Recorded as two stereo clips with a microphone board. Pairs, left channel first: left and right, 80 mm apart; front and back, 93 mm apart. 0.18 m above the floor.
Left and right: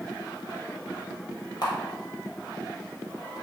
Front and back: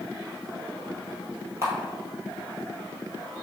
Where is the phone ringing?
I don't hear a phone ringing.